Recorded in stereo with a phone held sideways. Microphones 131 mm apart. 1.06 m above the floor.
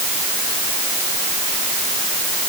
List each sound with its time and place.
Only background noise.